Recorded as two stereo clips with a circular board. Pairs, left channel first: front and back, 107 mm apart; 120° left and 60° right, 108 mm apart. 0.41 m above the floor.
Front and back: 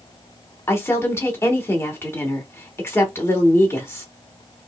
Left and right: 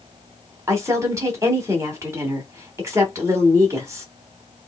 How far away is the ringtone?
I don't hear a ringtone.